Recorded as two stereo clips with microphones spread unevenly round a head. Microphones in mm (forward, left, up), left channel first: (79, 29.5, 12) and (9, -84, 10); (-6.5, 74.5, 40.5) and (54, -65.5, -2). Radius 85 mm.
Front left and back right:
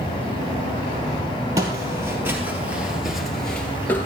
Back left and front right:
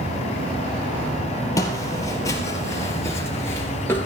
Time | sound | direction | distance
1.6 | footsteps | 170° left | 3 m